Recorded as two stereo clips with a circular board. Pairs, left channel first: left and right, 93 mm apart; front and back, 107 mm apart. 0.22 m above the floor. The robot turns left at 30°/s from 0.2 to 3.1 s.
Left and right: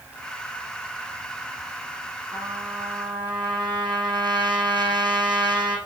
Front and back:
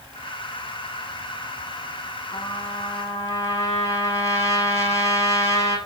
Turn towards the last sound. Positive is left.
turn(degrees=-60)